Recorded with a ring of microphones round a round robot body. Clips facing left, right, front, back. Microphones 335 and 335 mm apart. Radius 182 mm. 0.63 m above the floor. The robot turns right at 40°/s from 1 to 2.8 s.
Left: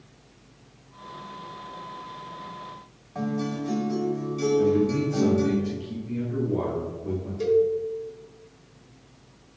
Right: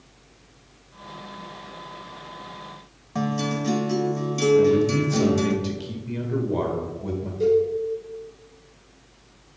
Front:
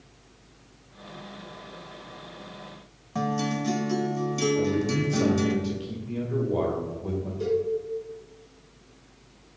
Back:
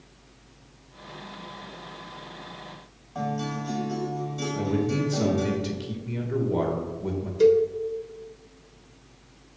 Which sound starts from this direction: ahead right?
A guitar, at 3.1 s.